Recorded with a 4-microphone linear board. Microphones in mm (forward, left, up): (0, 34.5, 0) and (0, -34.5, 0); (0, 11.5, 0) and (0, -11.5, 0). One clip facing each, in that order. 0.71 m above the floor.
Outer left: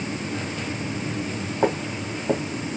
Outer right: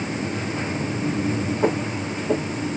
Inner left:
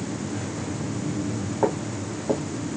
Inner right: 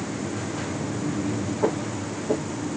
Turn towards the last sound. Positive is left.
turn(degrees=40)  # may be behind; listen again after turning